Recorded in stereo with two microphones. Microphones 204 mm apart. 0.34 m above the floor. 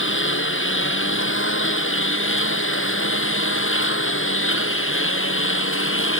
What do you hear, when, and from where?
0.0 s a lawn mower: 75° left (ahead or behind); by 6.2 s 90° left